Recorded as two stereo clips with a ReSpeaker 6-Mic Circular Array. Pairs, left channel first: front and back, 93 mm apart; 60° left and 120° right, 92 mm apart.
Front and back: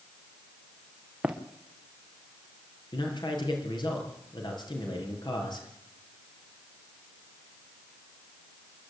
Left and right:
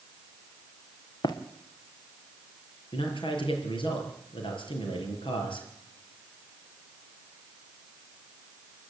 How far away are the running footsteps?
About 2.5 m.